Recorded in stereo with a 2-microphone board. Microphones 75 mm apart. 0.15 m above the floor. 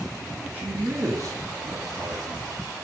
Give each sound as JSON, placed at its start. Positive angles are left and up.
{"t": 0.5, "sound": "a man speaking", "side_deg": -25, "distance_m": 2.0}